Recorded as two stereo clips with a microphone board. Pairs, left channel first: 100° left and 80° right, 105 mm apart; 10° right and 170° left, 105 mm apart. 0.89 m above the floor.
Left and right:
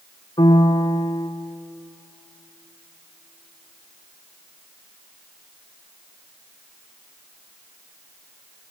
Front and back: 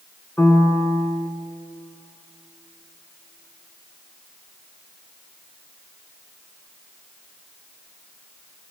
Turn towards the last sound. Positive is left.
turn(degrees=60)